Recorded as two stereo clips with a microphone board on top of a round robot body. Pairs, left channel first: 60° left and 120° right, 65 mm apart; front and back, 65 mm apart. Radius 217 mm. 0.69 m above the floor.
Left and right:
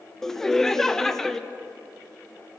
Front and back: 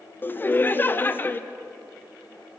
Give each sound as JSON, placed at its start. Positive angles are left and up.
{"t": 0.2, "sound": "laughter", "azimuth_deg": -20, "distance_m": 0.7}